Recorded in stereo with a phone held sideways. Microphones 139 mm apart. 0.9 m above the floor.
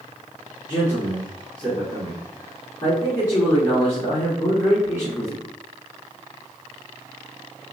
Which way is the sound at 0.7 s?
30° left (ahead or behind).